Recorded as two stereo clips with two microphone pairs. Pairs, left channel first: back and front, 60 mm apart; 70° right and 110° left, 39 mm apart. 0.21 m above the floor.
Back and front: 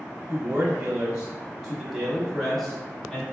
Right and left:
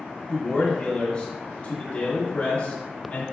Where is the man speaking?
5° right, 1.3 m; by 3.2 s 110° right, 1.8 m.